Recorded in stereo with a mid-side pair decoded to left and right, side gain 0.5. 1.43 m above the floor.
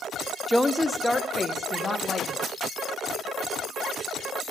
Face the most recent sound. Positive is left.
turn(degrees=20)